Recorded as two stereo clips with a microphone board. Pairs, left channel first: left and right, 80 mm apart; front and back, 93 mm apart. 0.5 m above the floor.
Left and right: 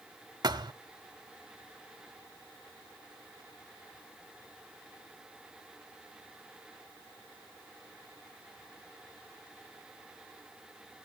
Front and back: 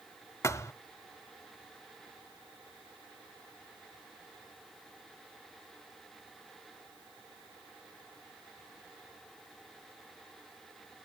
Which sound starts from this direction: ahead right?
A thud, at 0.4 s.